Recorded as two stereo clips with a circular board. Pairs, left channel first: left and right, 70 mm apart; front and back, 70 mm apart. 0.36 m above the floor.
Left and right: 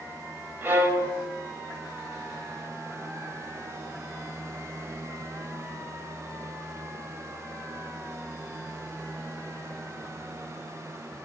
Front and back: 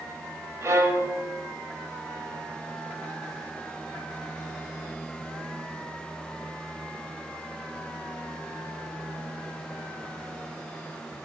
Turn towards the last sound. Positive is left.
turn(degrees=-145)